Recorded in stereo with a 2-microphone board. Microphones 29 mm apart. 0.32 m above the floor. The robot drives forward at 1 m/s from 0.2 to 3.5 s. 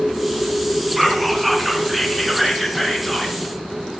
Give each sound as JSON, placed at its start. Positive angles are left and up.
{"t": 1.0, "sound": "whispering", "side_deg": -5, "distance_m": 3.5}